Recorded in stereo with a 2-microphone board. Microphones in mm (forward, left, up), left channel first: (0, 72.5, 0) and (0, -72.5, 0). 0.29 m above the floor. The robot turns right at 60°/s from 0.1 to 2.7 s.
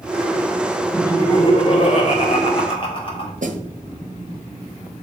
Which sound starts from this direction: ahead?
Laughter, at 0.9 s.